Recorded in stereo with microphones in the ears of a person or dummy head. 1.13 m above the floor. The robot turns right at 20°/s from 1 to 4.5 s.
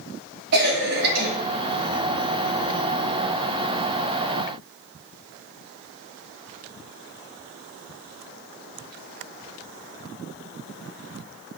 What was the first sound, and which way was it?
A cough, 60° right (ahead or behind).